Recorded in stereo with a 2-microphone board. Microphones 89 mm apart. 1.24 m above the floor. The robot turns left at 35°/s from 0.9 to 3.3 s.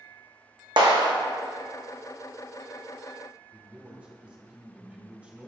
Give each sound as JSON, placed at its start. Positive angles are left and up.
{"t": 0.8, "sound": "a clap", "side_deg": -60, "distance_m": 1.2}
{"t": 3.5, "sound": "a man speaking", "side_deg": -15, "distance_m": 2.5}